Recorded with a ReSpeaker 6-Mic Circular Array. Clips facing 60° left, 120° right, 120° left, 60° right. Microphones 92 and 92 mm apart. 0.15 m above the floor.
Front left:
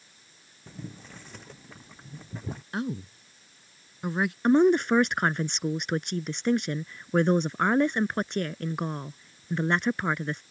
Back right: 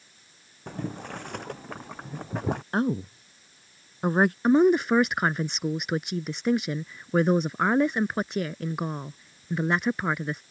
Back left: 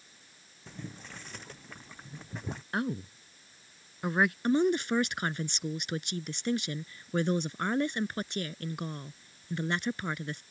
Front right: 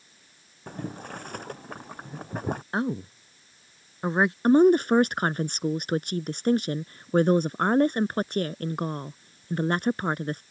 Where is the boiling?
95° right.